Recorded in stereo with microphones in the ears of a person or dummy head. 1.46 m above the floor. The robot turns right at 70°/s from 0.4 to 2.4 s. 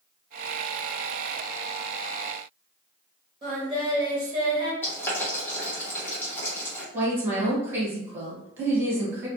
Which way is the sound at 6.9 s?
15° right (ahead or behind).